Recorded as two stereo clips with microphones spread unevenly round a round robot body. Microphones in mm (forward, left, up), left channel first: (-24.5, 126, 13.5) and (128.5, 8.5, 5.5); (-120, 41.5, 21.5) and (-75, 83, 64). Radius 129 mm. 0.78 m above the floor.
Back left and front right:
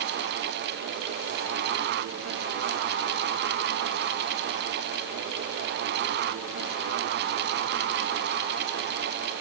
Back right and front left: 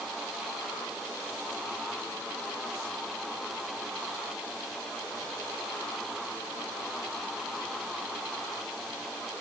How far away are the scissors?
No scissors in this recording.